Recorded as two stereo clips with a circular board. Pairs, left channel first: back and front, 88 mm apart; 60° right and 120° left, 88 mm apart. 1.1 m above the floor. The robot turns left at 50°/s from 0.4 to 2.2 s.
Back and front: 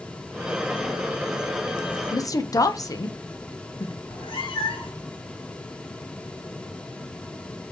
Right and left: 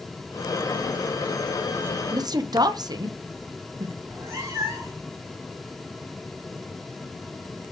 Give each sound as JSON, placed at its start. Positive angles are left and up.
{"t": 2.1, "sound": "a woman speaking", "azimuth_deg": 150, "distance_m": 0.5}
{"t": 4.0, "sound": "a cat meowing", "azimuth_deg": 175, "distance_m": 1.7}